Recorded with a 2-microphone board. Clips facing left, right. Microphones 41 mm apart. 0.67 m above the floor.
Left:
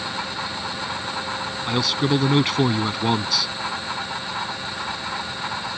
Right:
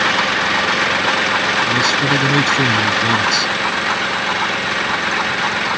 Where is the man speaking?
10° left (ahead or behind).